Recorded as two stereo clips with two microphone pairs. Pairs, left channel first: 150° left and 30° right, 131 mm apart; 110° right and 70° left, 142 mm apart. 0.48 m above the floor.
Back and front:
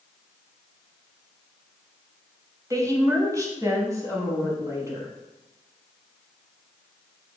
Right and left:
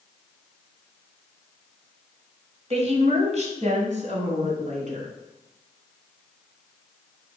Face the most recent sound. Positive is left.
turn(degrees=40)